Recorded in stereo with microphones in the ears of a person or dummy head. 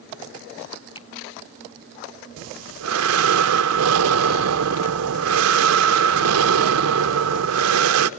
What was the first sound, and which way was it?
A finger snap, 25° left (ahead or behind).